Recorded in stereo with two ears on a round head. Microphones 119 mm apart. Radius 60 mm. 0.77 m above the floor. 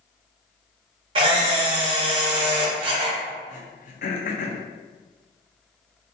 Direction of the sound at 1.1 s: 40° right (ahead or behind).